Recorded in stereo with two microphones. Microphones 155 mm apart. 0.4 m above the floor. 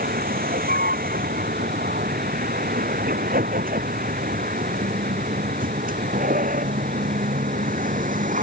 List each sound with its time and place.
0.0 s a vehicle: 70° right (ahead or behind); by 8.4 s 60° right (ahead or behind)